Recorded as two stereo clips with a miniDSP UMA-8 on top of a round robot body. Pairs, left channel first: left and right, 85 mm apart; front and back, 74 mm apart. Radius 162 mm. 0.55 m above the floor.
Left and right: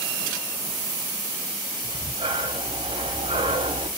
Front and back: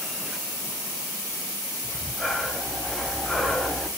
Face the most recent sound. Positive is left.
turn(degrees=-85)